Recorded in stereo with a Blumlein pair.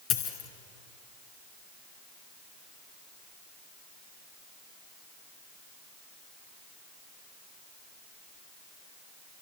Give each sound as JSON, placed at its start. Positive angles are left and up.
{"t": 0.1, "sound": "a dropped coin", "azimuth_deg": 35, "distance_m": 3.5}